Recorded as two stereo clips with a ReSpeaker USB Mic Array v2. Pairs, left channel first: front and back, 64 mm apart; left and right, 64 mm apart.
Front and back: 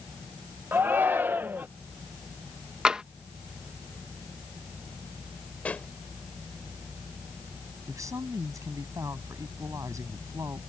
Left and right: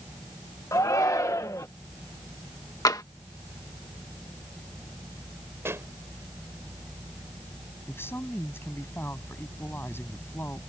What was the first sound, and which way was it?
A shout, 120° left.